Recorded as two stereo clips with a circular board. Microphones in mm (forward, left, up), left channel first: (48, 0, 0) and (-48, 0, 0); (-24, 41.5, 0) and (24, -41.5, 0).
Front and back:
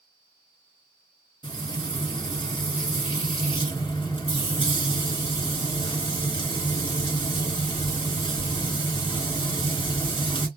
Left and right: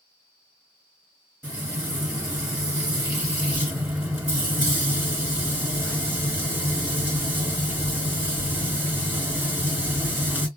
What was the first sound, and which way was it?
Frying, 5° left.